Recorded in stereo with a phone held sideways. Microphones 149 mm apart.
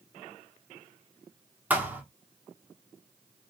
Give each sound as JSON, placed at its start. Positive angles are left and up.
{"t": 1.7, "sound": "a thud", "side_deg": -10, "distance_m": 1.1}